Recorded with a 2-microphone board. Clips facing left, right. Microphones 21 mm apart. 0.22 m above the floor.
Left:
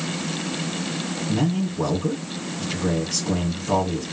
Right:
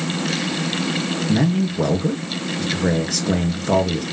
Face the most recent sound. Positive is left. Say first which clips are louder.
# right 4 dB
turn(degrees=-65)  # may be behind; listen again after turning